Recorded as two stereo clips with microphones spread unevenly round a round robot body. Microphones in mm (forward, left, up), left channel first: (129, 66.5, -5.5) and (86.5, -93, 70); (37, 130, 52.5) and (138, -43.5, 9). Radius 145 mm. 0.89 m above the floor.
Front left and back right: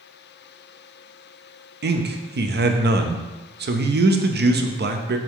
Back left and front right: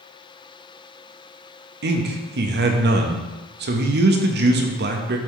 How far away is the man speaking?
About 0.8 m.